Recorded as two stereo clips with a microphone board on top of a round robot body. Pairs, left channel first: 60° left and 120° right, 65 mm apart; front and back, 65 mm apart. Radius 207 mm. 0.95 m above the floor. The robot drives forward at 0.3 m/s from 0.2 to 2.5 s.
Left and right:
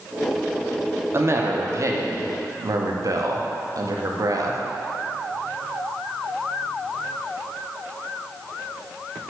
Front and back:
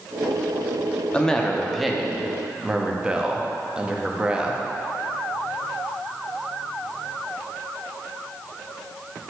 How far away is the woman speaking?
About 1.0 m.